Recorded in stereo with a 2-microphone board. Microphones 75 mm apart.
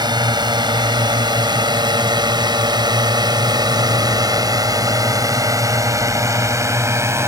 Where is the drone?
70° right (ahead or behind); by 7.3 s 40° right (ahead or behind).